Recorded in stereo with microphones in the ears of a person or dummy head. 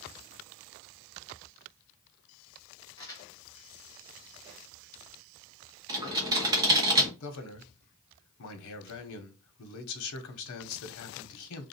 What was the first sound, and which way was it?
Crumpling, 15° left (ahead or behind).